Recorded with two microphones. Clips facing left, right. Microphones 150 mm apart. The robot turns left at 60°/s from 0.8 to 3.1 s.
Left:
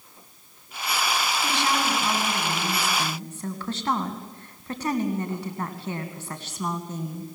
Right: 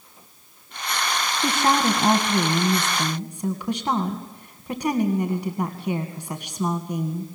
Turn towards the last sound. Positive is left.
turn(degrees=-165)